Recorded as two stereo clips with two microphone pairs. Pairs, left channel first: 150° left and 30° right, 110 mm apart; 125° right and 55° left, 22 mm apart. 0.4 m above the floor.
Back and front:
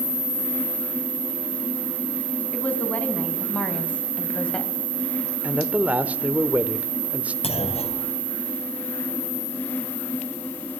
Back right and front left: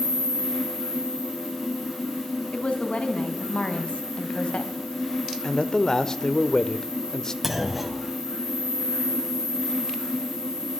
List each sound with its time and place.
2.5 s a woman speaking: 135° right, 4.5 m; by 4.7 s 130° right, 2.5 m
5.4 s a man speaking: 90° right, 1.3 m
7.4 s a clunk: 135° left, 3 m